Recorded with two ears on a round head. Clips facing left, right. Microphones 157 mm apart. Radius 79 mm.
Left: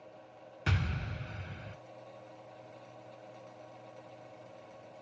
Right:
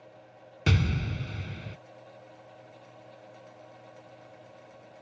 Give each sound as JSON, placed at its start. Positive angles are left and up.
{"t": 0.7, "sound": "an explosion", "side_deg": -45}